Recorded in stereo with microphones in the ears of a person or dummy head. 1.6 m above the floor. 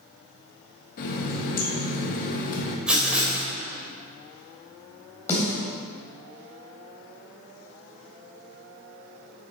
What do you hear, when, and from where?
1.0 s a running tap: 50° left (ahead or behind), 1.4 m
2.9 s writing: 5° right (ahead or behind), 2.5 m
5.3 s a snare drum: 10° left (ahead or behind), 3 m